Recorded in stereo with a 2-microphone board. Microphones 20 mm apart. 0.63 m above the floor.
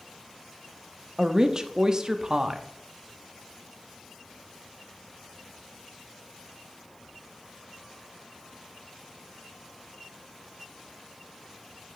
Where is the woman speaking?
35° right (ahead or behind), 0.6 m.